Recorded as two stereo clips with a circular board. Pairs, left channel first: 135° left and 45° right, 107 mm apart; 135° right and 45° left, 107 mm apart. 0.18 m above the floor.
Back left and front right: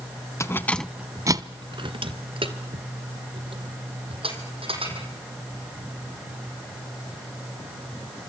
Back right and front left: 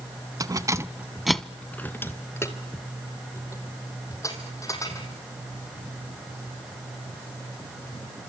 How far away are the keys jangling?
About 1.1 m.